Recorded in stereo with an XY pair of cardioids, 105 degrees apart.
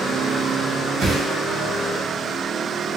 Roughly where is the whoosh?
Ahead right.